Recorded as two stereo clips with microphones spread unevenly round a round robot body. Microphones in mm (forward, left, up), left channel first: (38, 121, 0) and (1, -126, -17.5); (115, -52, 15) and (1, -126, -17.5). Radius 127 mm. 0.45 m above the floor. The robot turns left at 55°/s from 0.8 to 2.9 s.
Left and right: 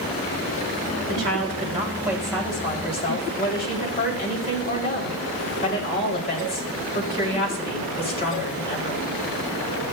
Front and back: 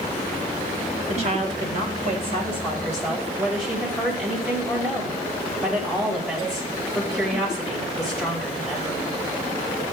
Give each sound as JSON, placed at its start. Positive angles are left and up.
{"t": 1.1, "sound": "a woman speaking", "azimuth_deg": -125, "distance_m": 2.0}